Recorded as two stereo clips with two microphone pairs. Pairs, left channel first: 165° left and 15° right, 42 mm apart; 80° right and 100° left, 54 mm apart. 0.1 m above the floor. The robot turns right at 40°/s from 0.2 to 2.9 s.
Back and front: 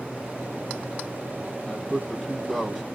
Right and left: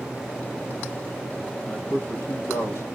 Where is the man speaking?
135° right, 3.5 m; by 2.8 s 90° right, 3.5 m.